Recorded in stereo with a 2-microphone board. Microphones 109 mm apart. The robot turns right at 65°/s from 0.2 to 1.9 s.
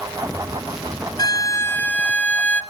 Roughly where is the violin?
Behind left.